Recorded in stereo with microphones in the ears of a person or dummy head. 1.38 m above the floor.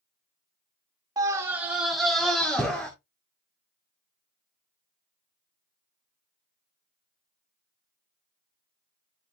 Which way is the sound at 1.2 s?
15° right (ahead or behind).